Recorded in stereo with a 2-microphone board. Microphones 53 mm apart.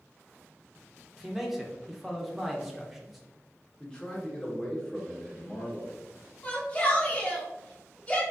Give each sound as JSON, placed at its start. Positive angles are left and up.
{"t": 1.2, "sound": "a man speaking", "side_deg": -5, "distance_m": 0.7}
{"t": 3.8, "sound": "a man speaking", "side_deg": 15, "distance_m": 0.9}
{"t": 6.4, "sound": "a shout", "side_deg": 25, "distance_m": 1.2}